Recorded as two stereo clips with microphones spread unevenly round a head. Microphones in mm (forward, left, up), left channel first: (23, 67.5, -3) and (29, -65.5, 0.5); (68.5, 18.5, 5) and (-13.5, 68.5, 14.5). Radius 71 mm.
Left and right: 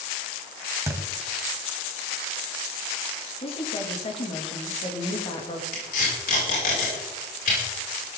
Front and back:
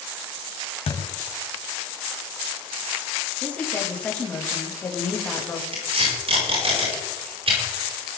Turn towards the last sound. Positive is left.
turn(degrees=130)